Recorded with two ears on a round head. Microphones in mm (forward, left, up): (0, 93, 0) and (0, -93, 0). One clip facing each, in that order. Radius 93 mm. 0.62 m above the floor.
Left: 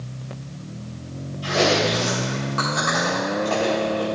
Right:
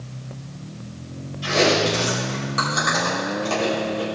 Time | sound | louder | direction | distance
1.4 | chewing | right 1 dB | 30° right (ahead or behind) | 3 m